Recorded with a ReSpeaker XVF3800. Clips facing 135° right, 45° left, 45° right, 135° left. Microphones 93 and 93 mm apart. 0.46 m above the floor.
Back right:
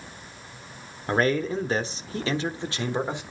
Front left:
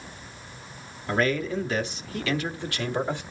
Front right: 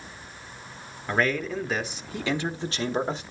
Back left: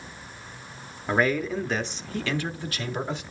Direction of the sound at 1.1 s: 155° right.